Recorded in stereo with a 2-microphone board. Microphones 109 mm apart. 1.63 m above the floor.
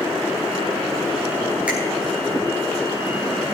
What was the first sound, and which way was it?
A finger snap, 10° right (ahead or behind).